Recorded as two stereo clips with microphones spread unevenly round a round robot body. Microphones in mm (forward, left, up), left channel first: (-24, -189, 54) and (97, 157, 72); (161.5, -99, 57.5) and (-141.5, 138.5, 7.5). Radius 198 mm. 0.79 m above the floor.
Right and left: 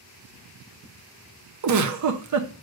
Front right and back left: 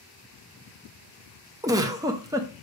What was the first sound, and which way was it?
A giggle, 75° left.